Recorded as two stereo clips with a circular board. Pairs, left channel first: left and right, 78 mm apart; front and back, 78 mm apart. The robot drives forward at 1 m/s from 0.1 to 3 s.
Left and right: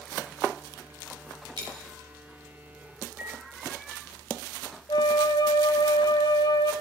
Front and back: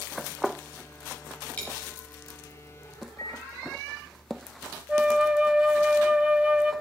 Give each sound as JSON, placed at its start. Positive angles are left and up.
{"t": 1.6, "sound": "a dropped coin", "azimuth_deg": -70, "distance_m": 5.0}
{"t": 3.2, "sound": "a microwave", "azimuth_deg": -25, "distance_m": 1.5}
{"t": 4.9, "sound": "a flute", "azimuth_deg": 105, "distance_m": 0.8}